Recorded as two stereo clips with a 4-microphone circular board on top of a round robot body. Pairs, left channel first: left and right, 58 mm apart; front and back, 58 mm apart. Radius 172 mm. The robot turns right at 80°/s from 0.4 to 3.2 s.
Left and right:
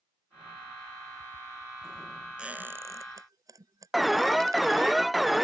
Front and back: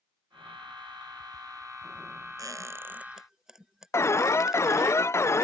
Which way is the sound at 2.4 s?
165° right.